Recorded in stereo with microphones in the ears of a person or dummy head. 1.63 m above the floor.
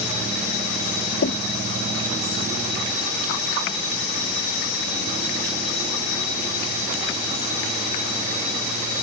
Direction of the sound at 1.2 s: 65° left (ahead or behind).